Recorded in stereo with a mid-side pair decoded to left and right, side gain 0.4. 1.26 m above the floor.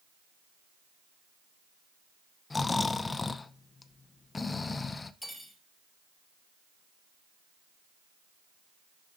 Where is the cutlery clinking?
5° right, 3 m.